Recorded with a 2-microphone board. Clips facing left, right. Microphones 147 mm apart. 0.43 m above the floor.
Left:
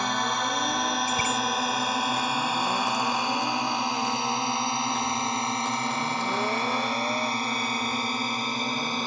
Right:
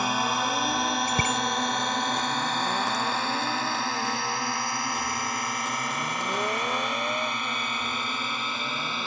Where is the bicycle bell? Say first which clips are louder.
Even; 60° right (ahead or behind).